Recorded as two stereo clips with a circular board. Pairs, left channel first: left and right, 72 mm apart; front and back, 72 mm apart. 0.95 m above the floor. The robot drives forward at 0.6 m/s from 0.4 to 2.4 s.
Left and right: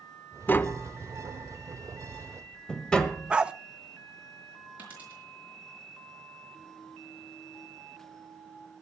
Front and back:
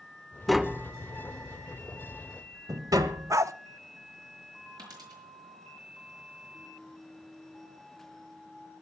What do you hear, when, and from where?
0.5 s tapping: 85° left, 0.6 m; by 3.4 s 165° left, 1.3 m
3.3 s a dog barking: 160° right, 0.5 m
4.8 s a dropped coin: 160° right, 6 m